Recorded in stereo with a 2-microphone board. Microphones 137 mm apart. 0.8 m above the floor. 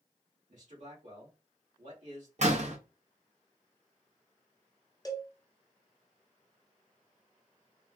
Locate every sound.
0.5 s a man speaking: 65° right (ahead or behind), 2 m
2.4 s a door slam: 55° right (ahead or behind), 0.7 m
5.0 s a cowbell: 25° left (ahead or behind), 0.6 m